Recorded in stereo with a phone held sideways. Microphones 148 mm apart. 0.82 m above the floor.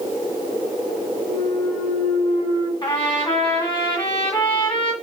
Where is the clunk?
55° left (ahead or behind), 1.6 m.